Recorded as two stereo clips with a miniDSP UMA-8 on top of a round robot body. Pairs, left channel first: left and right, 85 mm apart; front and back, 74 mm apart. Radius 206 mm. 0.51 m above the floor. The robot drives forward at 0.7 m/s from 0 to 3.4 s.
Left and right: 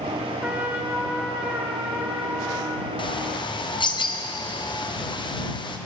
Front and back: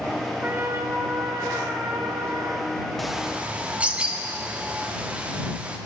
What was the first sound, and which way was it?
A trumpet, 140° right.